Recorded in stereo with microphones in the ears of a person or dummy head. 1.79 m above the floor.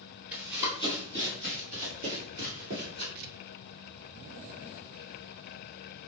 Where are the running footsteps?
15° right (ahead or behind), 2.0 m; by 3.0 s 50° right (ahead or behind), 2.5 m.